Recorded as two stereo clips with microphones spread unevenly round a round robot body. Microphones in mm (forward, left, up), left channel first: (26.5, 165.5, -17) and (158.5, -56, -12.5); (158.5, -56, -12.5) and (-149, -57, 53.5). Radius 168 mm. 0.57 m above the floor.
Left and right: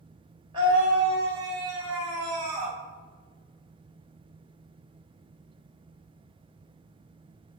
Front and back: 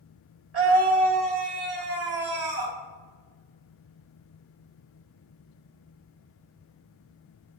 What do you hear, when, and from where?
0.5 s a scream: 135° right, 3.5 m; by 2.8 s 140° right, 5 m